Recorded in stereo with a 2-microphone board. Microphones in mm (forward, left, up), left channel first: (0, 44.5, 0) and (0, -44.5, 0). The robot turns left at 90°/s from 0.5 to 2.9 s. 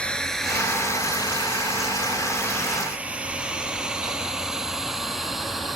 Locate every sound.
0.0 s a drone: 10° left (ahead or behind); by 5.8 s centre (ahead or behind)